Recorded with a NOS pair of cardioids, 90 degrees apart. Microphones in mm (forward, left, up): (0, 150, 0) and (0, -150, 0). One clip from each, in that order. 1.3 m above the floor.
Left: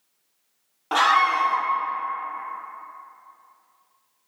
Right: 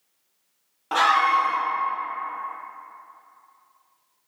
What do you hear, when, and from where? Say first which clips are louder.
0.9 s a scream: even; 10° left, 0.5 m